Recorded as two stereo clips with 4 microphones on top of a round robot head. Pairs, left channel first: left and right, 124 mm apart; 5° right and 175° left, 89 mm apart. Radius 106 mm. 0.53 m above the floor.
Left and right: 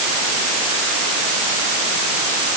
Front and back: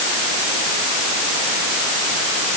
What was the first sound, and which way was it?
Only background noise.